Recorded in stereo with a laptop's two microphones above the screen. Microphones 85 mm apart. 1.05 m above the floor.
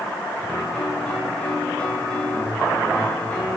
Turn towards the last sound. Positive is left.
turn(degrees=10)  # may be behind; listen again after turning